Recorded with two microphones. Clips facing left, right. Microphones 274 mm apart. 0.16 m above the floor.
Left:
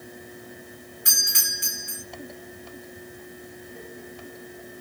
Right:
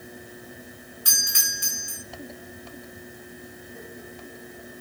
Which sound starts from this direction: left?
A doorbell, at 1.1 s.